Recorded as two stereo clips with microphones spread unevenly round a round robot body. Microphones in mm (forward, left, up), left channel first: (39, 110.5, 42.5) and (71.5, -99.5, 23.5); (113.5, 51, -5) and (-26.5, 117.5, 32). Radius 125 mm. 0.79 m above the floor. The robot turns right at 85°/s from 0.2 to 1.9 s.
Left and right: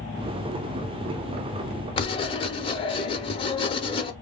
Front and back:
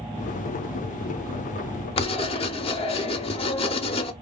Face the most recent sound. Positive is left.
turn(degrees=35)